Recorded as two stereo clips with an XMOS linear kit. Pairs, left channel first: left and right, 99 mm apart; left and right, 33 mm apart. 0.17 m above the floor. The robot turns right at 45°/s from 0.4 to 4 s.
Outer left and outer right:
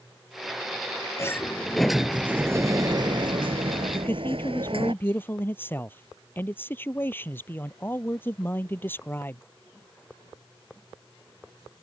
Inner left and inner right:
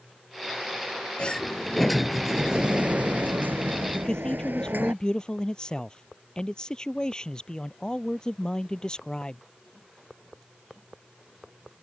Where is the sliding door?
150° left; by 4.9 s 85° right.